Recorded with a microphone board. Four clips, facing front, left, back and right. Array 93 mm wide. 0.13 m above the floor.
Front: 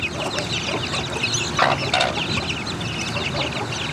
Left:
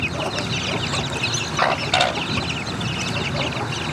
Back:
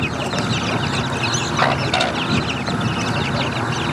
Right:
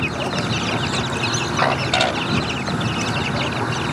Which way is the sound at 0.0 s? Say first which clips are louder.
Right 2 dB, back 4 dB; 145° right.